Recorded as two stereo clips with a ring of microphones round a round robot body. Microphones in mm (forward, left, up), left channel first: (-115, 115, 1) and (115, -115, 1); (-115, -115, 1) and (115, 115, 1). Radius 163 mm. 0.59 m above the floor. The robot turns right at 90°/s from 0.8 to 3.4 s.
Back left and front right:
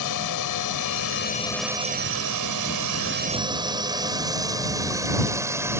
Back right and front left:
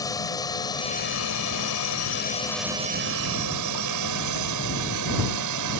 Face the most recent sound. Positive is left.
turn(degrees=35)